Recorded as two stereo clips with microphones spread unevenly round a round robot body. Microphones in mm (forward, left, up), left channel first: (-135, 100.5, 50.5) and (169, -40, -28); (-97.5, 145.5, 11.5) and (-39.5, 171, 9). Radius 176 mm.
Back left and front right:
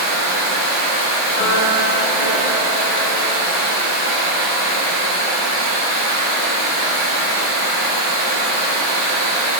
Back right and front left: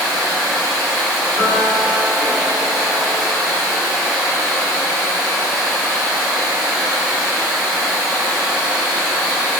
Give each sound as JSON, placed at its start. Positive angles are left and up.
{"t": 0.0, "sound": "running water", "azimuth_deg": 35, "distance_m": 0.9}
{"t": 1.4, "sound": "a piano", "azimuth_deg": 25, "distance_m": 1.4}